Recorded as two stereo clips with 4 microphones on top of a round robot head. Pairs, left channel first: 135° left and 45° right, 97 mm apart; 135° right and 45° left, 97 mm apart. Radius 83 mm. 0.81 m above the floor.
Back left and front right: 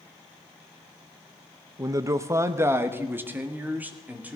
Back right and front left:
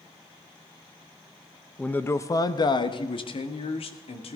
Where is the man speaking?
60° right, 0.8 m; by 4.4 s 120° right, 2.5 m.